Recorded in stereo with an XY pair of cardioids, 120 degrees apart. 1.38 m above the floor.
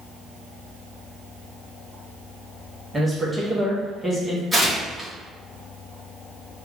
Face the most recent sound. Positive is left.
turn(degrees=-10)